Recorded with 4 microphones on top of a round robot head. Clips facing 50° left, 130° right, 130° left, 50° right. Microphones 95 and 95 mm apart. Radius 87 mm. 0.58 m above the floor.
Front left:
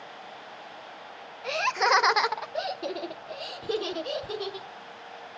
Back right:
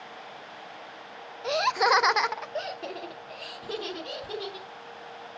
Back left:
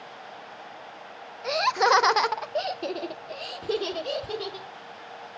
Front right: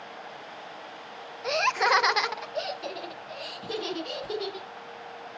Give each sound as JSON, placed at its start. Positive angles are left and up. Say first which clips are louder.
{"t": 1.4, "sound": "laughter", "louder": "back right 2 dB, back left 3 dB", "azimuth_deg": -130, "distance_m": 0.6}